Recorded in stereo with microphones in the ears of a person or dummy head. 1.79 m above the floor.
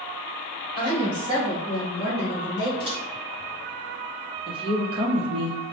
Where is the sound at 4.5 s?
30° right (ahead or behind), 0.9 m.